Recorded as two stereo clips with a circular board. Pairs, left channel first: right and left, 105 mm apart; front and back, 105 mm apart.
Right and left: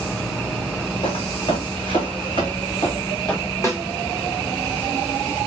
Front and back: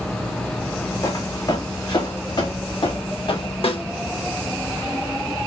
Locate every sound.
1.0 s footsteps: 55° right, 2.5 m; by 3.5 s 35° right, 3.5 m
3.6 s a snare drum: 30° right, 2.0 m